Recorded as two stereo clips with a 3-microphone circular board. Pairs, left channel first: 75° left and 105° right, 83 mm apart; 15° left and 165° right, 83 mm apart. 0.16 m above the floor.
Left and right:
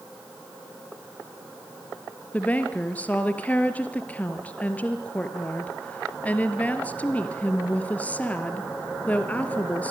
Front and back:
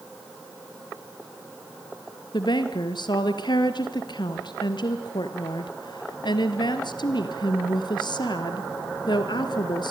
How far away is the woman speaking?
About 3 m.